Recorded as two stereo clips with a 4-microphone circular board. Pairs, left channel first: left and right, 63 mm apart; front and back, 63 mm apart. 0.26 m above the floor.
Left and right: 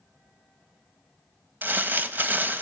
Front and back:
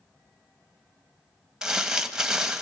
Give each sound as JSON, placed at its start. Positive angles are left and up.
{"t": 1.6, "sound": "crumpling", "azimuth_deg": -110, "distance_m": 1.1}